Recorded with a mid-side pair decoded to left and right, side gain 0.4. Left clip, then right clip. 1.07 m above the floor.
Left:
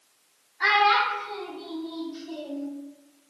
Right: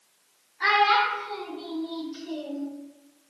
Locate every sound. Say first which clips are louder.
0.6 s a child speaking: even; 25° left, 1.1 m; by 2.7 s 65° right, 0.9 m